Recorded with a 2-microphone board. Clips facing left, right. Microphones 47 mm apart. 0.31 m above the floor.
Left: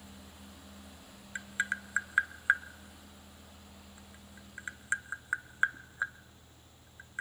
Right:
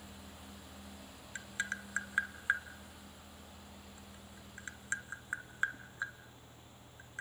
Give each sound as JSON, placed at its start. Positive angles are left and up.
{"t": 1.4, "sound": "tapping", "side_deg": 20, "distance_m": 0.5}